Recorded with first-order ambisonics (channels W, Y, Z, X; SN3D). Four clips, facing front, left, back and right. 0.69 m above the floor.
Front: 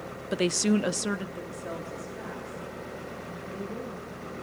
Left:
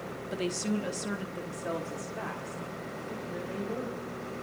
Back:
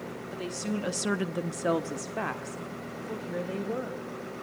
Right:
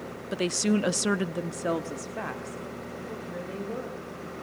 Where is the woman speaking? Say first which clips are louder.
Right 6 dB, front 9 dB; 20° right, 0.9 m; by 4.0 s 170° right, 3 m.